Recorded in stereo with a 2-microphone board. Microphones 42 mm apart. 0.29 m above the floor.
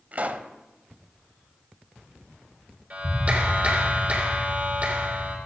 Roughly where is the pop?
Right.